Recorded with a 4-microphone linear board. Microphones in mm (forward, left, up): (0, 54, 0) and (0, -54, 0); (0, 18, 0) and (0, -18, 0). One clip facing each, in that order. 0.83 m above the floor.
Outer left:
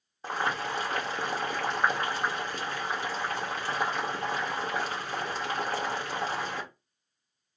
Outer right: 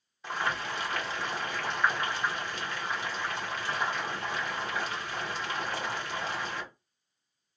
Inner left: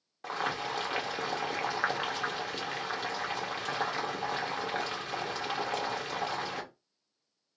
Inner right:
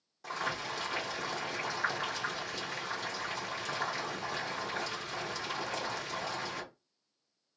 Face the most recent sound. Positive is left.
turn(degrees=40)  # may be behind; listen again after turning